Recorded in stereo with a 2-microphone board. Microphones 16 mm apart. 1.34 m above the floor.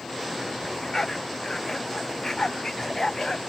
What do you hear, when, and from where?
0.6 s a dog barking: 30° left (ahead or behind); by 3.4 s 40° left (ahead or behind)